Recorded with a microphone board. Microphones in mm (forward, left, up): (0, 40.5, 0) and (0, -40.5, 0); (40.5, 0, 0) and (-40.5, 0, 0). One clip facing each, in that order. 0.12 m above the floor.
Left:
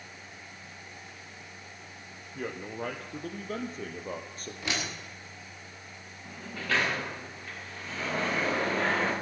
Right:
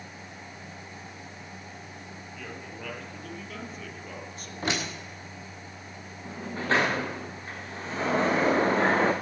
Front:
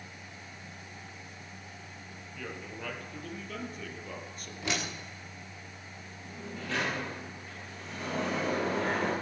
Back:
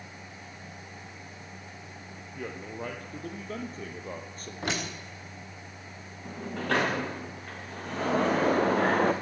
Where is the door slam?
140° right, 7.5 m.